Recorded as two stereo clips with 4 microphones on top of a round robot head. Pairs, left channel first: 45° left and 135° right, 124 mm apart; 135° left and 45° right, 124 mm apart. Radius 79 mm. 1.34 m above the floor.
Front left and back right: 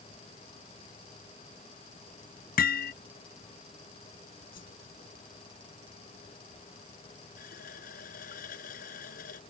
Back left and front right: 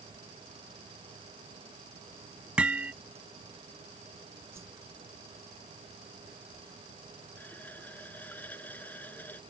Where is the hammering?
35° left.